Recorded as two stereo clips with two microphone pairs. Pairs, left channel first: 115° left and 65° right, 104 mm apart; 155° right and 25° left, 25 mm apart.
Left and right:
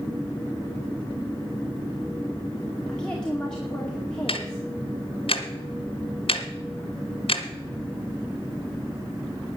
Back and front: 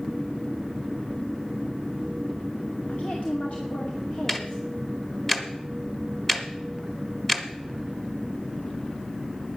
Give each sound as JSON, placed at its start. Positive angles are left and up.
{"t": 2.9, "sound": "a woman speaking", "azimuth_deg": -165, "distance_m": 2.0}
{"t": 4.3, "sound": "ticking", "azimuth_deg": 130, "distance_m": 1.5}